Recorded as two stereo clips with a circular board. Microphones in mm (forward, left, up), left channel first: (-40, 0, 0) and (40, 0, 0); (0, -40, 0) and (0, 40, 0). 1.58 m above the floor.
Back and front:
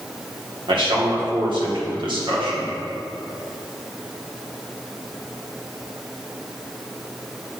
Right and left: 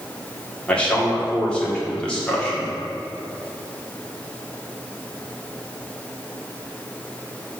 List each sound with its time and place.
0.7 s a man speaking: 15° right, 1.8 m